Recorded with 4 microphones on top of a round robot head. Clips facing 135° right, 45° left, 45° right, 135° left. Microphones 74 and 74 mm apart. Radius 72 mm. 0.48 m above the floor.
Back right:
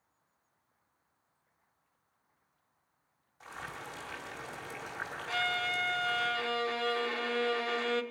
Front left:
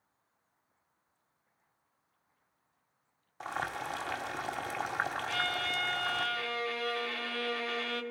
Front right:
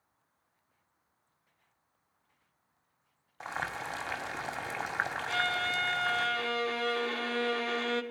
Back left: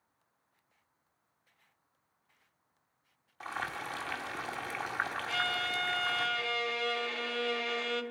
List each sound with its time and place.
3.4 s boiling: 20° left, 1.9 m
5.3 s a violin: 80° right, 1.1 m